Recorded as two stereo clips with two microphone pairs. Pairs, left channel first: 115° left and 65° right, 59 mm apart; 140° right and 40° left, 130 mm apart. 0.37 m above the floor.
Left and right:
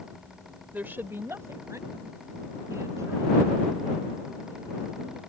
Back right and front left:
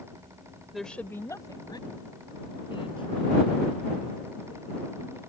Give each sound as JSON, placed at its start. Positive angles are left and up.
{"t": 0.7, "sound": "a woman speaking", "azimuth_deg": -50}